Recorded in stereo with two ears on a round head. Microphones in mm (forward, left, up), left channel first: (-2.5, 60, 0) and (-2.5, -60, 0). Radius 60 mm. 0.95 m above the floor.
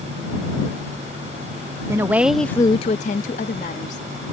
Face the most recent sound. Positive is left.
turn(degrees=55)  # may be behind; listen again after turning